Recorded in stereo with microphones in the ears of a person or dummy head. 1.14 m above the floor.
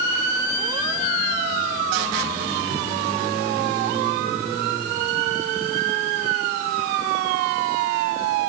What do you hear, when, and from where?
Only background noise.